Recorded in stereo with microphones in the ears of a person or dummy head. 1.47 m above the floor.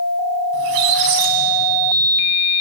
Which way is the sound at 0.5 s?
50° right (ahead or behind).